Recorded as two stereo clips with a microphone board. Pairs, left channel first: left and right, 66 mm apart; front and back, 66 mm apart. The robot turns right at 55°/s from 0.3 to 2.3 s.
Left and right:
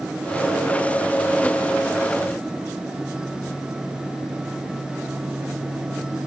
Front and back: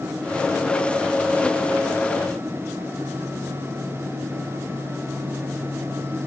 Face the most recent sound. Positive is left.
No sound to turn to.